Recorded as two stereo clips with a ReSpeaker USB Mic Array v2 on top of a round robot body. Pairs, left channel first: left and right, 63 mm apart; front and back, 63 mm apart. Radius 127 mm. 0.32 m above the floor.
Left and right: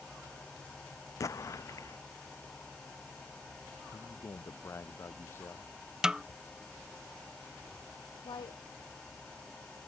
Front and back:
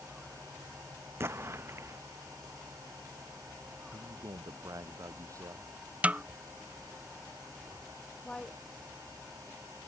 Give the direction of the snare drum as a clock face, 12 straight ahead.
5 o'clock.